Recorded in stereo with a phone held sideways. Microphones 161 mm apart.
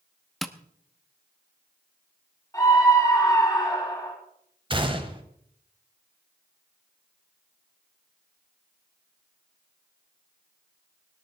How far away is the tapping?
About 0.8 m.